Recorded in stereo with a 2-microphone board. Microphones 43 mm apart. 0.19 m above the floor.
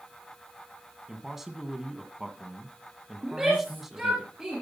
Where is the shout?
15° right (ahead or behind), 4 m.